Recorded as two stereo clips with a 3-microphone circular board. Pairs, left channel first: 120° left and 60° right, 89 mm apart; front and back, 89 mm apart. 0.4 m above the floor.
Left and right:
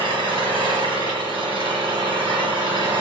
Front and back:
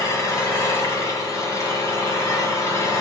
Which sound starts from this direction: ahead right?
An engine running, at 0.0 s.